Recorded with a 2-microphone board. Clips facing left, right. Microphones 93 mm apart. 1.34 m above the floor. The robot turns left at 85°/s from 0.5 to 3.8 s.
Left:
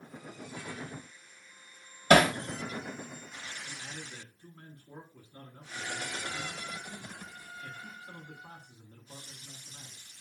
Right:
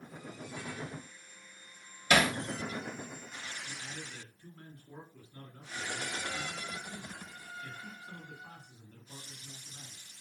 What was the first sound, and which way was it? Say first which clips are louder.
Hammering: left 6 dB; 50° left (ahead or behind).